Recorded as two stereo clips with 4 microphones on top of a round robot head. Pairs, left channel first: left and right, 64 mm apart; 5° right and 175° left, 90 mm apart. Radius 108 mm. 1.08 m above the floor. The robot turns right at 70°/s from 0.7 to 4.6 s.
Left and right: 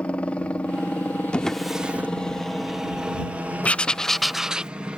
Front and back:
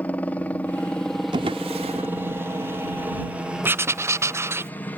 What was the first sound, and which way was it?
A helicopter, 45° left.